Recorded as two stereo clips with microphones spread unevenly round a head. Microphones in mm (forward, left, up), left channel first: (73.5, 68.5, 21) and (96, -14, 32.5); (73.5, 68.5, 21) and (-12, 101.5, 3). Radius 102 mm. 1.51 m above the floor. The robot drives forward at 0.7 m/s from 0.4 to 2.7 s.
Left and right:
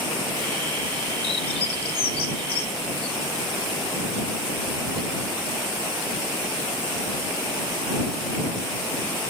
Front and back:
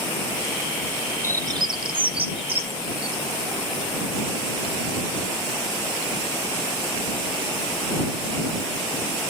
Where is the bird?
95° left, 0.7 m; by 3.2 s 145° left, 1.3 m.